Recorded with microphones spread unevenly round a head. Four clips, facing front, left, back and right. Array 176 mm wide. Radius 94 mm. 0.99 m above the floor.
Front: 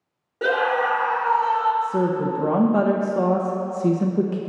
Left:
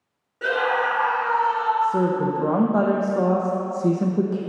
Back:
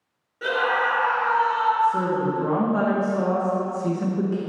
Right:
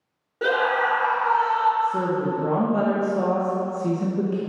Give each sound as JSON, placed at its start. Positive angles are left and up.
{"t": 0.4, "sound": "a scream", "azimuth_deg": -35, "distance_m": 2.0}
{"t": 1.8, "sound": "a woman speaking", "azimuth_deg": 25, "distance_m": 1.0}